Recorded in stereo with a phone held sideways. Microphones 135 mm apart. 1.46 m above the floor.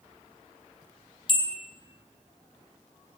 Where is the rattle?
No rattle in this recording.